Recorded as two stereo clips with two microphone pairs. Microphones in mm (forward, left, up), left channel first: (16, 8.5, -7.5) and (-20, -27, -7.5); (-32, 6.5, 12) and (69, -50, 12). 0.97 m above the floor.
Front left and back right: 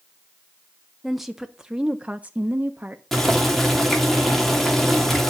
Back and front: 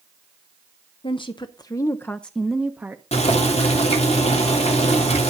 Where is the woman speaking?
140° left, 0.8 m; by 3.0 s 90° right, 0.8 m.